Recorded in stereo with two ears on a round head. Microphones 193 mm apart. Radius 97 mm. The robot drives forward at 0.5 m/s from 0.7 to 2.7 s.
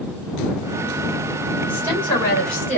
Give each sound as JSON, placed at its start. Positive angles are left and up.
{"t": 1.7, "sound": "a woman speaking", "side_deg": 10, "distance_m": 2.0}